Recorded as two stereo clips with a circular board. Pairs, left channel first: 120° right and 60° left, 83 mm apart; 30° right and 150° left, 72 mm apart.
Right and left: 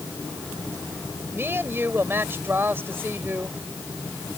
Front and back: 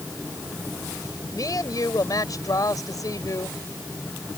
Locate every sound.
1.3 s a woman speaking: straight ahead